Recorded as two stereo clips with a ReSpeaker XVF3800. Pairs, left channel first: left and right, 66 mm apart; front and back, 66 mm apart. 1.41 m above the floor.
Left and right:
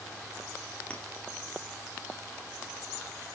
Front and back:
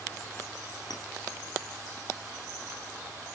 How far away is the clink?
About 3 m.